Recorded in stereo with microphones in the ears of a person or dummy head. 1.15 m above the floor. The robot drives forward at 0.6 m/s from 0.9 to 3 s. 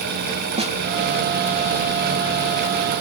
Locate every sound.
0.6 s a snare drum: 30° right (ahead or behind)